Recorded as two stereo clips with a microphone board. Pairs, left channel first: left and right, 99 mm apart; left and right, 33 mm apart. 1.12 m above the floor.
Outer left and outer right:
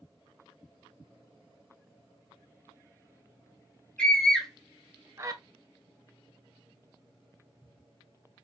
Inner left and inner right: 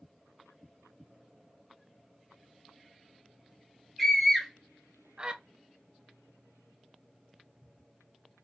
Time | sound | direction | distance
4.0 | a scream | 10° left (ahead or behind) | 1.1 m